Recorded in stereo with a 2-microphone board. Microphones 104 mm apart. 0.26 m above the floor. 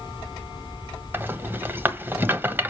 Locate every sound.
1.1 s a rattle: 20° right (ahead or behind), 1.1 m